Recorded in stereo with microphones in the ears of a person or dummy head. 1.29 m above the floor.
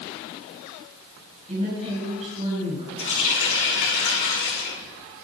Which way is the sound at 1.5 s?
30° right (ahead or behind).